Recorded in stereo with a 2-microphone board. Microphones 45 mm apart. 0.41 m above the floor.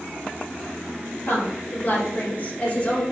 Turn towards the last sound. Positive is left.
turn(degrees=30)  # may be behind; listen again after turning